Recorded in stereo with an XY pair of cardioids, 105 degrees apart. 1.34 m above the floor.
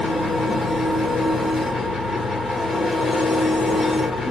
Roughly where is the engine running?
Ahead left.